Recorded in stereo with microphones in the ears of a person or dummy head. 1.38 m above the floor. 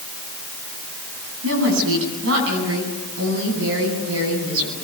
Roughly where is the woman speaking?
Right.